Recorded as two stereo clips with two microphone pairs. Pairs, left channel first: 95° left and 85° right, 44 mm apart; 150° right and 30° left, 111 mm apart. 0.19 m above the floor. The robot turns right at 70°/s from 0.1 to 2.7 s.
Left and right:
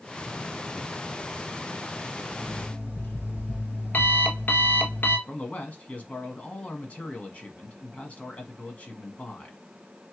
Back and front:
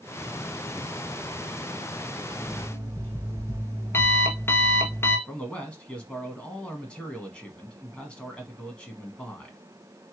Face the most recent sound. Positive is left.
turn(degrees=135)